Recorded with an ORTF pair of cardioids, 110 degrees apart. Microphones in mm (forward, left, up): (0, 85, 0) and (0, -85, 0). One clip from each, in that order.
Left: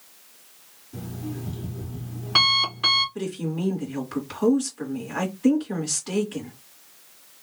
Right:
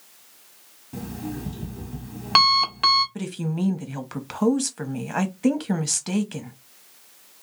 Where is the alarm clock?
65° right, 1.4 m.